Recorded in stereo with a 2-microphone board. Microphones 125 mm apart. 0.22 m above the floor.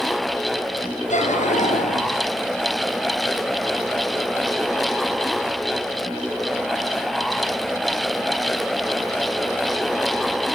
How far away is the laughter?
About 4.5 m.